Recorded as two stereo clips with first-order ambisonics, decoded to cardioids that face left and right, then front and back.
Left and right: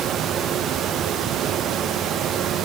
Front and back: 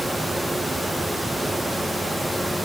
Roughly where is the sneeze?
No sneeze in this recording.